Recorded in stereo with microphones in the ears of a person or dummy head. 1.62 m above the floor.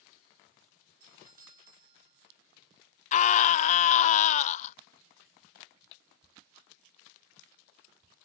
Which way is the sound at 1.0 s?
45° right (ahead or behind).